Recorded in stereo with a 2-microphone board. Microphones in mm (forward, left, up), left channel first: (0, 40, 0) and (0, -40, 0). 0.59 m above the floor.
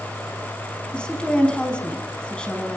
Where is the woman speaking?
15° left (ahead or behind), 5 m.